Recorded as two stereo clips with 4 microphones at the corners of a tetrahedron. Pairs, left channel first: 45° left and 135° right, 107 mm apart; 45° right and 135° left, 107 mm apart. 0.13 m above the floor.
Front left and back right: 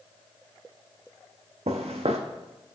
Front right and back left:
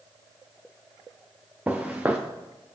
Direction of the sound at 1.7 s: 150° right.